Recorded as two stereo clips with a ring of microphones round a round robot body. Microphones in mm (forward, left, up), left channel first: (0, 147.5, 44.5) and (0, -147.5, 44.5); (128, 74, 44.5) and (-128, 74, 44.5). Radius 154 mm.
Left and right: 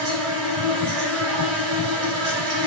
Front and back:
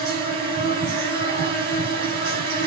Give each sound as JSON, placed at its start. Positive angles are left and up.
{"t": 0.0, "sound": "an insect", "azimuth_deg": -125, "distance_m": 6.0}